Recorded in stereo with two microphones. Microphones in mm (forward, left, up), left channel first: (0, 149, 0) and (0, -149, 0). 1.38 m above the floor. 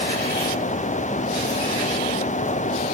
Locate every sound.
Only background noise.